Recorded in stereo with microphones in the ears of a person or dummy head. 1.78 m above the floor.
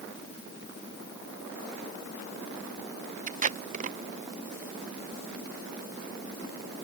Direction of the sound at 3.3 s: 45° right (ahead or behind).